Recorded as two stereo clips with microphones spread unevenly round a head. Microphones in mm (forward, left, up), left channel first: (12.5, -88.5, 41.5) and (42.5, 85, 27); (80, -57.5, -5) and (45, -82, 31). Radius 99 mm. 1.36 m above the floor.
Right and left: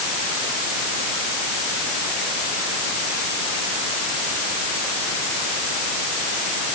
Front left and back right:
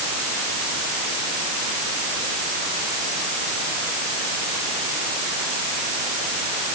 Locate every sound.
Only background noise.